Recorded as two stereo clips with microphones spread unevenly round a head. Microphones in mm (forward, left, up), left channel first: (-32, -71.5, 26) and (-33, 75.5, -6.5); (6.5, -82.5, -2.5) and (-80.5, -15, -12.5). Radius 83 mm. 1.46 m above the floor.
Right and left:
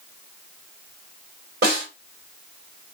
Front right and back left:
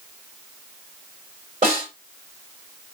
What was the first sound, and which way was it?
A snare drum, 90° left.